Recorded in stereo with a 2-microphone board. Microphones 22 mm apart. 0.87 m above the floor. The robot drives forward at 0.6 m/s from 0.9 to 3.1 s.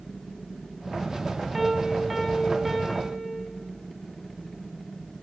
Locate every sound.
1.5 s a piano: 5° right (ahead or behind), 3.5 m